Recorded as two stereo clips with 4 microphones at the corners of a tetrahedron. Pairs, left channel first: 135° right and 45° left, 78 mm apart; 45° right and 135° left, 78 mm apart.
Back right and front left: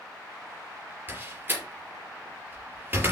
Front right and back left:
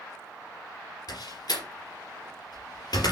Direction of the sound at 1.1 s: 20° right.